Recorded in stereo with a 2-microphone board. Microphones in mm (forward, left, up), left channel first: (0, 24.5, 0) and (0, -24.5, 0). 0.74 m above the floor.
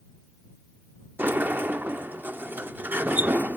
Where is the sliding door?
40° right (ahead or behind).